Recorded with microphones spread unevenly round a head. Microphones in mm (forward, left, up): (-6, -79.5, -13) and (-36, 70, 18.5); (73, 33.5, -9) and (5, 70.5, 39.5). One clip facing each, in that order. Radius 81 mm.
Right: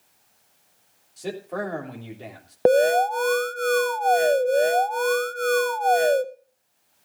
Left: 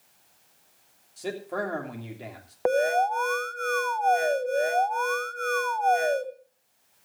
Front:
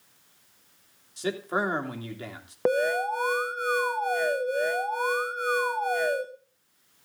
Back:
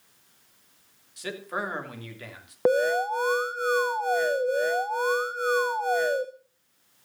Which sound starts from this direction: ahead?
A man speaking, at 1.2 s.